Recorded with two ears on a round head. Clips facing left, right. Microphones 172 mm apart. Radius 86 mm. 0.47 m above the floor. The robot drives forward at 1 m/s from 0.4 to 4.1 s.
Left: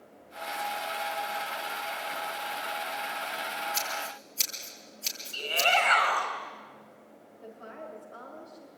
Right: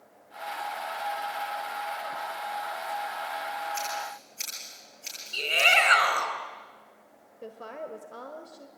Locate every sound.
3.7 s scissors: 50° left (ahead or behind), 8.5 m
5.3 s a shout: 25° right (ahead or behind), 4 m
7.4 s a woman speaking: 60° right (ahead or behind), 2 m